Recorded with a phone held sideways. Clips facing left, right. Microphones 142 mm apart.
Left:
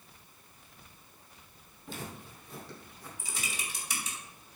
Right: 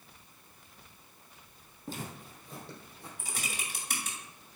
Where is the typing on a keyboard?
55° right (ahead or behind), 2 m.